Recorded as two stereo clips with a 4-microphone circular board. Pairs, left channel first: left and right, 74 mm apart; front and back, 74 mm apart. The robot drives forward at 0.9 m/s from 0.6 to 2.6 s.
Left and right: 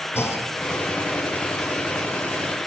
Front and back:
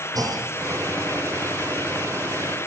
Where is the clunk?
145° left, 2 m.